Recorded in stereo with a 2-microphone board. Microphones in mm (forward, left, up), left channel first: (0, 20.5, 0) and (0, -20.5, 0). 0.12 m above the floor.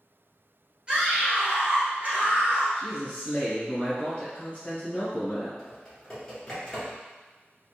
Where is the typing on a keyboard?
10° left (ahead or behind), 1.6 m.